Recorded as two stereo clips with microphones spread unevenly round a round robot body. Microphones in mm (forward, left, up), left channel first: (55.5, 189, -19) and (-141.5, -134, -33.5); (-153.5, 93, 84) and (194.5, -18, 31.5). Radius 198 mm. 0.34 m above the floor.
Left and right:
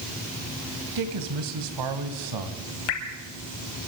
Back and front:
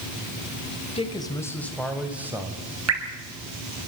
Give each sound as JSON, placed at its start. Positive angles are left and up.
{"t": 0.9, "sound": "a man speaking", "azimuth_deg": -120, "distance_m": 2.0}
{"t": 2.9, "sound": "dripping", "azimuth_deg": 30, "distance_m": 3.0}